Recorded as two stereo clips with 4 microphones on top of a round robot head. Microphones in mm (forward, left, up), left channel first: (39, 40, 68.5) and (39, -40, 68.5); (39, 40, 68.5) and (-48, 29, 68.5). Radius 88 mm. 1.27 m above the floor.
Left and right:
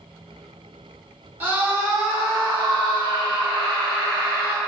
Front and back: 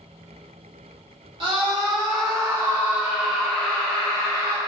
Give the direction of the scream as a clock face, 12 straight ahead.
5 o'clock.